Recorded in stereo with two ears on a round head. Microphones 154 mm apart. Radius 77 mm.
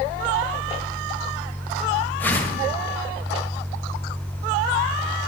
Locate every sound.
2.2 s a whoosh: 10° left (ahead or behind), 1.4 m